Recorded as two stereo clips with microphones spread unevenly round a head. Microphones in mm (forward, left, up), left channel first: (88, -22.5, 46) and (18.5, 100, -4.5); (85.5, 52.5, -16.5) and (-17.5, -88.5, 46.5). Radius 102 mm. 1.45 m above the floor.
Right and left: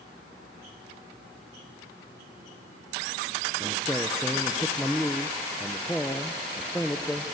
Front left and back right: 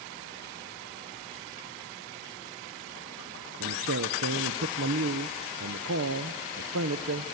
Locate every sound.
3.6 s a man speaking: 145° right, 0.7 m